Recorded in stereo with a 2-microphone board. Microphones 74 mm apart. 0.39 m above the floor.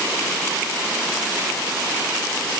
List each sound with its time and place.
Only background noise.